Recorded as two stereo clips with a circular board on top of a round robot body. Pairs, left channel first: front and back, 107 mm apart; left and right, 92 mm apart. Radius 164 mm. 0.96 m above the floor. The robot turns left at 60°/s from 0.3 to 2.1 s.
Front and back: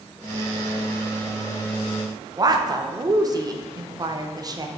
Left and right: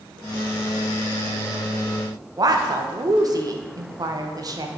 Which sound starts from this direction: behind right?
A woman speaking, at 2.4 s.